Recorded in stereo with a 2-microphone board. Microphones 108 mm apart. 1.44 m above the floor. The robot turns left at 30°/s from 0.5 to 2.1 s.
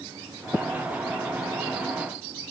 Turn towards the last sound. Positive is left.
No sound to turn to.